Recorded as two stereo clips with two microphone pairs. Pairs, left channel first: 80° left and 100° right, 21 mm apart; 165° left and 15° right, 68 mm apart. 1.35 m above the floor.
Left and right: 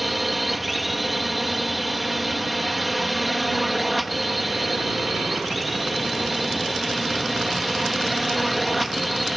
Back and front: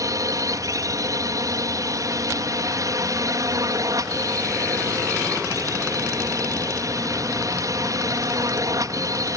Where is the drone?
15° right.